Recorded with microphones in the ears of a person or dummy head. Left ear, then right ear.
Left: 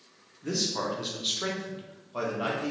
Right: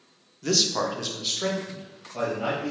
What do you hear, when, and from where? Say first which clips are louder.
0.4 s a man speaking: right 7 dB; 45° right (ahead or behind), 0.7 m; by 2.7 s 30° left (ahead or behind), 1.6 m